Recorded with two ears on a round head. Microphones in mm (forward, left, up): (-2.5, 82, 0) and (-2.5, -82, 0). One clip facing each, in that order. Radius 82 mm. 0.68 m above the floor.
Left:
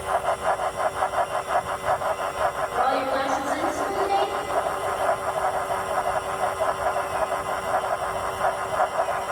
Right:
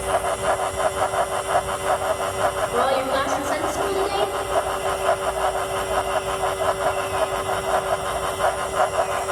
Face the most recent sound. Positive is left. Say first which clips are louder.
# right 2 dB
turn(degrees=-75)  # may be behind; listen again after turning